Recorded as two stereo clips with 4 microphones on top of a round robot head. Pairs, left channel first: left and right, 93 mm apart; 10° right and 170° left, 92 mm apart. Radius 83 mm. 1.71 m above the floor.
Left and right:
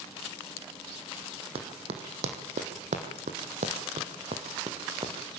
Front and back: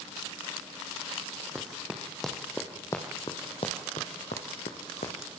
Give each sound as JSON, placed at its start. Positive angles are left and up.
{"t": 1.6, "sound": "running footsteps", "azimuth_deg": -110, "distance_m": 4.0}